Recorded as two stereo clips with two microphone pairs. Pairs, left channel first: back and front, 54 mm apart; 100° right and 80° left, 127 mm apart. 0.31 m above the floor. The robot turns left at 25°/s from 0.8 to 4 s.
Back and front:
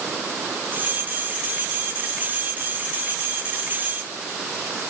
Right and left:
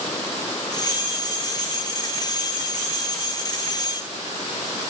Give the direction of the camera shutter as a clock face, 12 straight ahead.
No camera shutter in this recording.